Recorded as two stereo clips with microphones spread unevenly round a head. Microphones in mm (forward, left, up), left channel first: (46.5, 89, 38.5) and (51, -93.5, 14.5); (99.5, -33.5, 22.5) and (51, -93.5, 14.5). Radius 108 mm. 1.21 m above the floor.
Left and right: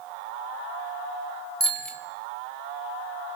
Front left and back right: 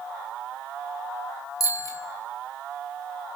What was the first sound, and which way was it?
A bicycle bell, 10° left.